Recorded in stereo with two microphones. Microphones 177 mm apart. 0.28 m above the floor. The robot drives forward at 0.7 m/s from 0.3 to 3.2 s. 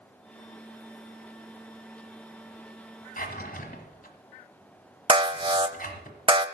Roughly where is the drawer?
Left.